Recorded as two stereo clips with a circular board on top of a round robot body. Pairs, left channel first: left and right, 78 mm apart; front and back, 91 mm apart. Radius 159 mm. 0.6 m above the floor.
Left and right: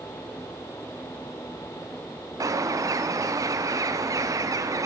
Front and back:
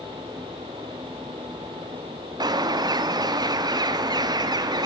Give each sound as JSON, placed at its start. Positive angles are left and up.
{"t": 2.4, "sound": "a bird", "azimuth_deg": -135, "distance_m": 0.5}